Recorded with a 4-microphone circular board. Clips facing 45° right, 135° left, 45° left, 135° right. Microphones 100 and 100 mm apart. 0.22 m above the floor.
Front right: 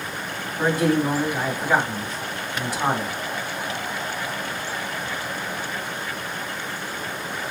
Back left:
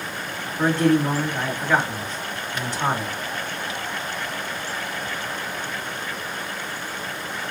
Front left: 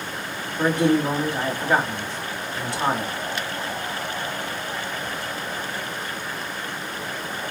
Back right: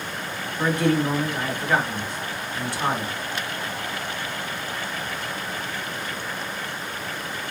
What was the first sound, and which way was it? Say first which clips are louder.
A man speaking: back left 2 dB, front left 2 dB; 20° left.